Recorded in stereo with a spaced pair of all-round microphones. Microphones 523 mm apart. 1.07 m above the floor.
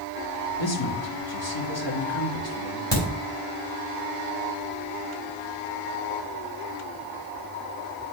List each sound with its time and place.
0.6 s a man speaking: 55° left (ahead or behind), 1.7 m
2.9 s a crack: 20° left (ahead or behind), 4 m